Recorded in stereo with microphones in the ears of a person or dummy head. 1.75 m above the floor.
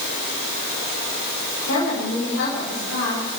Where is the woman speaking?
85° left, 9 m.